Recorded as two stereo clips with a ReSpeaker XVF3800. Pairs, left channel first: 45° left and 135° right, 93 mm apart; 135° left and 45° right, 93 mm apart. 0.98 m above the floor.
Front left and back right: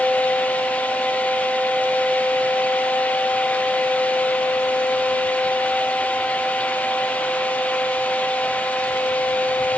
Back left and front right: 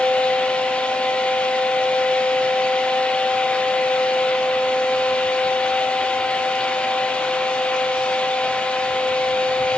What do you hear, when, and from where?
Only background noise.